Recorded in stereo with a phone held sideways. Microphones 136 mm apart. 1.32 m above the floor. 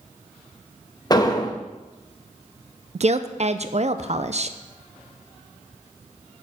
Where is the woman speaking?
55° right (ahead or behind), 0.5 m.